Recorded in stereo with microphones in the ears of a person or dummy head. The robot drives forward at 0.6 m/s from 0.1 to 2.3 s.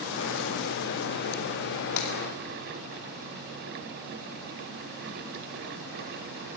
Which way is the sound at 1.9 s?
65° left (ahead or behind).